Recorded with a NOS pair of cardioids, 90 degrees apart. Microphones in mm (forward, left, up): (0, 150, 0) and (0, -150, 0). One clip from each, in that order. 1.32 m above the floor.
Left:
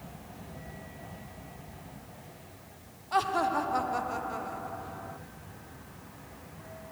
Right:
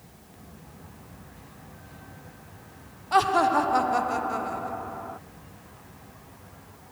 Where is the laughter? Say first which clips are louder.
Right 7 dB; 25° right.